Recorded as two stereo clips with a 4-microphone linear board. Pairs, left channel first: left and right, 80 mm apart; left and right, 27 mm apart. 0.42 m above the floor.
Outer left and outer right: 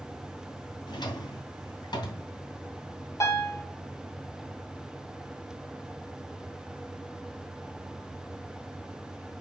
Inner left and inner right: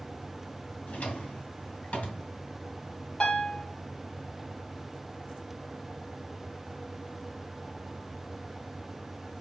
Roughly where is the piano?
Left.